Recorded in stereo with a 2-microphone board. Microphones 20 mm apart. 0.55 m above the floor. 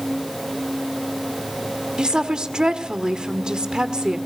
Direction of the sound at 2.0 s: 45° right (ahead or behind).